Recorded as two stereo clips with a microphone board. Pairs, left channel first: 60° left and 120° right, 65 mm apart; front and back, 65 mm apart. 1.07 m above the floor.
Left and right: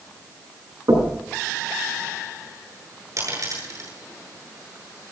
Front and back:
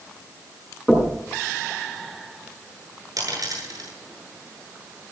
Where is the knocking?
95° right, 6.5 m.